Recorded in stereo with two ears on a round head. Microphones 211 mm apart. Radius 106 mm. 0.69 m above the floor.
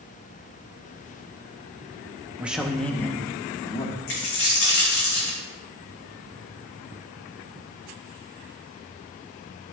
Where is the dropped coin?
65° left (ahead or behind), 3.5 m.